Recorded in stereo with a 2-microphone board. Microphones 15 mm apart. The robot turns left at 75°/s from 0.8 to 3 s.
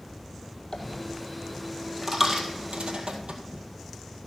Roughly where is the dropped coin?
Left.